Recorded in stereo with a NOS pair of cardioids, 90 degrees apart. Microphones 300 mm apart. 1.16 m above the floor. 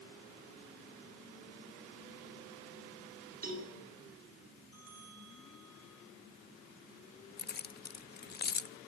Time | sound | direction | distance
3.4 | a cowbell | 30° right | 8 m
4.7 | a bell | 55° right | 6 m
7.4 | keys jangling | 35° left | 0.9 m